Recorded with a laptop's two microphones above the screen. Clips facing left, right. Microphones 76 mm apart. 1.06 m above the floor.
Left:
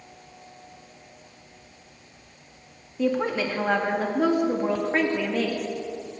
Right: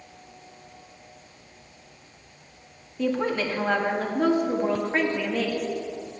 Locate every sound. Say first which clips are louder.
3.0 s a woman speaking: left 1 dB; 5° left (ahead or behind), 1.7 m